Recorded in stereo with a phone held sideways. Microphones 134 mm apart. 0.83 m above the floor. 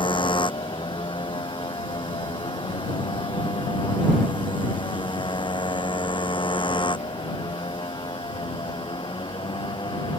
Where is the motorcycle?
40° left (ahead or behind); by 10.2 s 35° left (ahead or behind).